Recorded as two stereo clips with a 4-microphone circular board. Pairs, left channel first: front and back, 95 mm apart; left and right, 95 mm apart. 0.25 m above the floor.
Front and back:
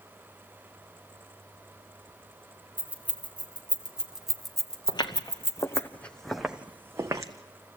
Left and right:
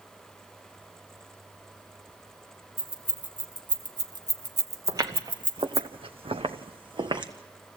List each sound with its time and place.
2.8 s keys jangling: 110° right, 2.5 m; by 5.9 s 10° left, 1.1 m
4.9 s footsteps: 40° right, 1.3 m; by 7.3 s 125° right, 1.2 m